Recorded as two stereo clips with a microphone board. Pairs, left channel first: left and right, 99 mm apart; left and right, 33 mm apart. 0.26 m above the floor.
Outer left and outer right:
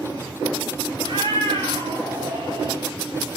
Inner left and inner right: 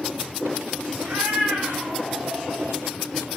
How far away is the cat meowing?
About 4 m.